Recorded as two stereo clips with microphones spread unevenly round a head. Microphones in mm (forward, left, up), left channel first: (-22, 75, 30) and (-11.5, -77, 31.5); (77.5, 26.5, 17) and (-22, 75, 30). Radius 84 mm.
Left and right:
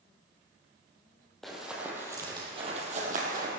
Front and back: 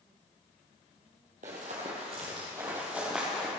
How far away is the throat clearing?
I don't hear throat clearing.